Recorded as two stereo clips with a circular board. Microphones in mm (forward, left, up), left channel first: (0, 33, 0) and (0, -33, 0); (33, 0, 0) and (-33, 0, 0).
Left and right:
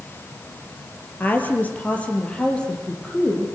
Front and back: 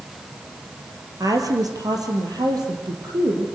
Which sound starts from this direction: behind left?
A woman speaking, at 1.2 s.